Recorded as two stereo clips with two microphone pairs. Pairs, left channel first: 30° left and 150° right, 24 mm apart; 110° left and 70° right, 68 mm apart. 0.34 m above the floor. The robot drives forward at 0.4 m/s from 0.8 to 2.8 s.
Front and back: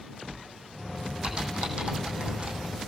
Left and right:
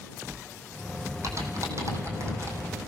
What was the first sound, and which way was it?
Typing on a keyboard, 105° right.